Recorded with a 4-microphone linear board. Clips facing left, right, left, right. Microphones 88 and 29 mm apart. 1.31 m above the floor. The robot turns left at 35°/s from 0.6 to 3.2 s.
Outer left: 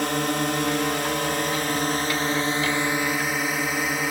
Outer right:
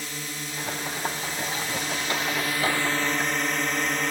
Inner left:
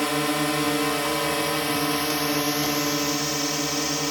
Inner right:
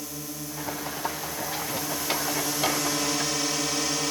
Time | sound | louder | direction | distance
0.0 | a drone | outer left 13 dB, inner left 14 dB | 100° left | ?